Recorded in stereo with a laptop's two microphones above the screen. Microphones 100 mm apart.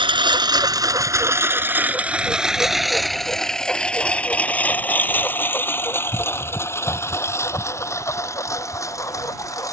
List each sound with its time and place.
0.0 s a lawn mower: 55° right (ahead or behind); by 9.7 s 30° left (ahead or behind)